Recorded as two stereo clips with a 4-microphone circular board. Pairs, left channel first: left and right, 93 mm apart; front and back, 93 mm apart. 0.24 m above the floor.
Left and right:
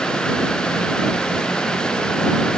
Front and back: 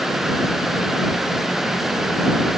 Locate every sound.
Only background noise.